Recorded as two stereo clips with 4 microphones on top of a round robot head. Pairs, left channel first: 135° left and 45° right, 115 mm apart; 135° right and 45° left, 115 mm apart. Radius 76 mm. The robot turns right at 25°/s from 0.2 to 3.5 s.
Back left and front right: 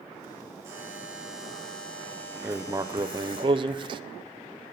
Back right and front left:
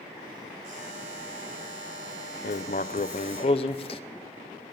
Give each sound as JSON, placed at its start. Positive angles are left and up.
{"t": 0.6, "sound": "a buzzer", "azimuth_deg": 20, "distance_m": 8.0}
{"t": 2.4, "sound": "writing", "azimuth_deg": -120, "distance_m": 0.5}